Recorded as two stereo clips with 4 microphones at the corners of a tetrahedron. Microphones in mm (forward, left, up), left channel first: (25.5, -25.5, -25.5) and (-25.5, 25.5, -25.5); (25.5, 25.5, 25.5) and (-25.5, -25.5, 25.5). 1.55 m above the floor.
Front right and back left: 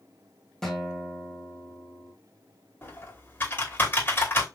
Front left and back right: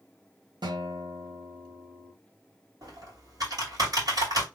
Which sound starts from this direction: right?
Typing on a keyboard, at 2.8 s.